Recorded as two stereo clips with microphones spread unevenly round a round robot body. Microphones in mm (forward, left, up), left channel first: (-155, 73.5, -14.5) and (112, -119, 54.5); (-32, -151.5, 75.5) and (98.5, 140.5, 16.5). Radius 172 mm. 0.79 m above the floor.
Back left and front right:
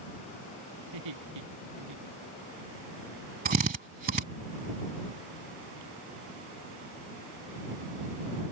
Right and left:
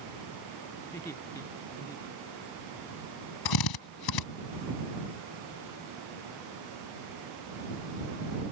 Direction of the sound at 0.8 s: 35° right.